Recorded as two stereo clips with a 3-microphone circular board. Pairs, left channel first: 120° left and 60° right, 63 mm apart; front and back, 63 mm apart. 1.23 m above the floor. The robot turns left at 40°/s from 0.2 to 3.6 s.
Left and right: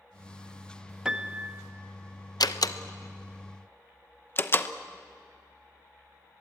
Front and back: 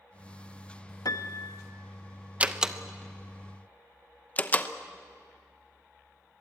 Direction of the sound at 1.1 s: 20° left.